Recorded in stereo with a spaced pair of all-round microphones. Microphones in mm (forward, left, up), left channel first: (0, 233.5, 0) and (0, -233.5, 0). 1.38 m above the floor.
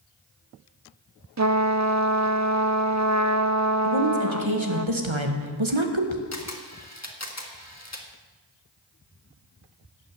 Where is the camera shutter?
35° left (ahead or behind), 1.5 m.